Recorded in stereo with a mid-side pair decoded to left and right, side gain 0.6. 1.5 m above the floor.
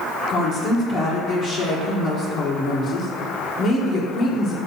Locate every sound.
0.3 s a woman speaking: 45° left, 1.5 m